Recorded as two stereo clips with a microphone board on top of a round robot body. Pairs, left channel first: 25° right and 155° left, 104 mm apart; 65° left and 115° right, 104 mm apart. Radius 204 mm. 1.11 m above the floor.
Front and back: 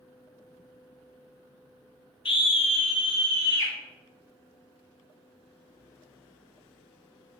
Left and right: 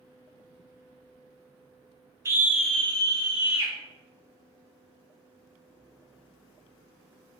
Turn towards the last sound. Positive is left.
turn(degrees=40)